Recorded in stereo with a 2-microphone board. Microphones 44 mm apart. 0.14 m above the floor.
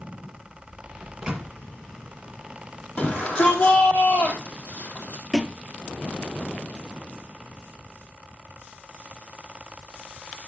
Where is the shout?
30° left (ahead or behind), 3.5 m.